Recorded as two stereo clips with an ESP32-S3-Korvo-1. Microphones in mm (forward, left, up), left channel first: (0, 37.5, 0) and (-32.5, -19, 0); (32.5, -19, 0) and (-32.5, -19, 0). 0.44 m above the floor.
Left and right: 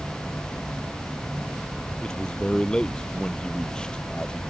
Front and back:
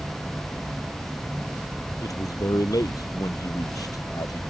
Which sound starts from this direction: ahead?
A man speaking, at 2.0 s.